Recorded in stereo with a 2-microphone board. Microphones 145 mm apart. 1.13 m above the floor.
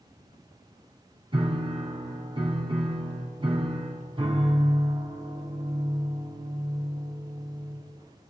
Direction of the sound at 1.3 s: 35° right (ahead or behind).